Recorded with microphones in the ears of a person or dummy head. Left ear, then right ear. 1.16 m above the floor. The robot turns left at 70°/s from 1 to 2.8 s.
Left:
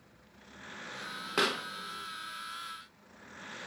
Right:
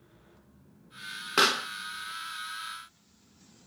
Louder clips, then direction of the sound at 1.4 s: Right 6 dB; 15° right (ahead or behind).